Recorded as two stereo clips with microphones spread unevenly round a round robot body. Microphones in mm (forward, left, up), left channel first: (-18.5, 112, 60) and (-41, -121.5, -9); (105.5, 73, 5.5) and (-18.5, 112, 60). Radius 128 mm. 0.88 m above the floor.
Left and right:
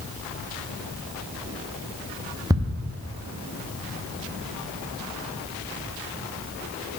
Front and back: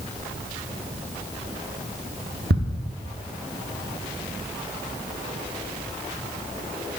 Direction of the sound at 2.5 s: 170° right.